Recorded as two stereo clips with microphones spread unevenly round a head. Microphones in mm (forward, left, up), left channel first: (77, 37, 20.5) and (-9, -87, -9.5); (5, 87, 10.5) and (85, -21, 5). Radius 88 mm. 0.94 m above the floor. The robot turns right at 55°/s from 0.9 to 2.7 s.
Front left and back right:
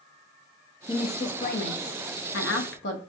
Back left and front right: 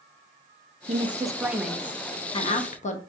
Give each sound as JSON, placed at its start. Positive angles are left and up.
{"t": 0.9, "sound": "a woman speaking", "azimuth_deg": -5, "distance_m": 0.8}